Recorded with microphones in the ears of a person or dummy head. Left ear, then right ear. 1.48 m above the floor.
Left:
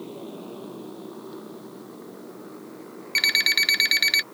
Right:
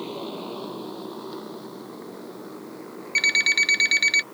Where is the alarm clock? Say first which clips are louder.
Right 1 dB; 20° left (ahead or behind).